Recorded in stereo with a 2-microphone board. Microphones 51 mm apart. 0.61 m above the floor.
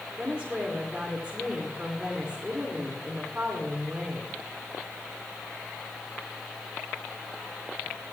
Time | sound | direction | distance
0.2 | a woman speaking | 20° right (ahead or behind) | 2 m